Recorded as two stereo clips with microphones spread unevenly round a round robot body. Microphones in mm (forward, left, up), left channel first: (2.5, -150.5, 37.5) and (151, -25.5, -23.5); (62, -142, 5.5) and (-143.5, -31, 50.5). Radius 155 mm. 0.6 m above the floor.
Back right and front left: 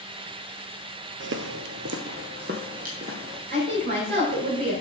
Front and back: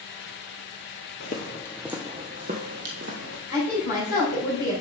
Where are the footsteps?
30° left, 0.8 m; by 3.4 s 115° left, 1.6 m.